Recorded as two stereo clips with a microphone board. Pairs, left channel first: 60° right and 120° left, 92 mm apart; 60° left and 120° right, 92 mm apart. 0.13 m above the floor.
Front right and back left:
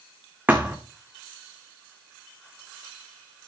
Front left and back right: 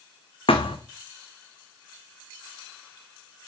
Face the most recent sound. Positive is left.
turn(degrees=45)